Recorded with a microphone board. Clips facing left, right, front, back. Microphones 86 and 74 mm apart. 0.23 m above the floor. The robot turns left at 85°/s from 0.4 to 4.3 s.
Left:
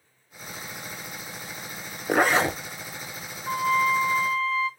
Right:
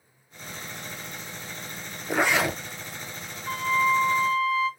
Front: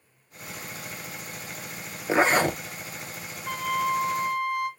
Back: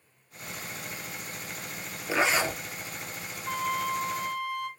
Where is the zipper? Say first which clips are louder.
Left 3 dB, front 5 dB; 60° left, 0.7 m; by 2.6 s 15° left, 0.7 m.